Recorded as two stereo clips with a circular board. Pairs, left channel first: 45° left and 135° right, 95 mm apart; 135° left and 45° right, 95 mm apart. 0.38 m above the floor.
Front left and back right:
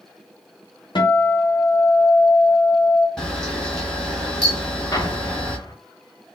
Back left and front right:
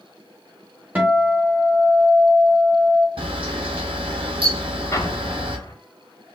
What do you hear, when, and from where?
0.9 s a guitar: 25° left, 0.9 m
3.2 s a camera shutter: 40° right, 1.0 m
4.9 s an explosion: 85° left, 0.6 m